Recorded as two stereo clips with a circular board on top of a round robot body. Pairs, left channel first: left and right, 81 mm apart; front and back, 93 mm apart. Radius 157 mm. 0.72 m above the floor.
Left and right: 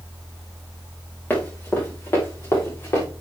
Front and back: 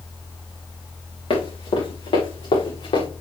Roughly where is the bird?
No bird in this recording.